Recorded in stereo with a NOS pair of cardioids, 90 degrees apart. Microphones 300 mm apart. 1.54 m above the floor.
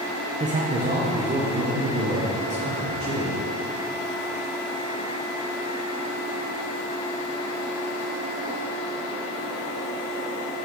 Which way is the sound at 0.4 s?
20° right.